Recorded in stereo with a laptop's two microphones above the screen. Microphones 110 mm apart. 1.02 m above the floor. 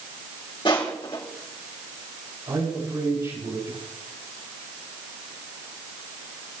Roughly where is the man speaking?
Right.